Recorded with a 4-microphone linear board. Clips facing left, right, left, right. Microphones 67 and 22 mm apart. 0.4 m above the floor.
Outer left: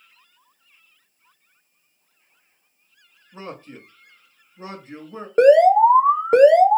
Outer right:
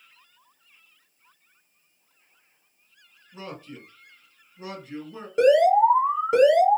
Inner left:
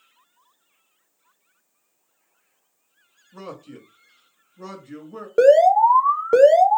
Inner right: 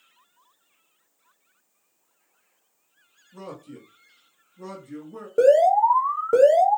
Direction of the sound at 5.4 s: 40° left (ahead or behind).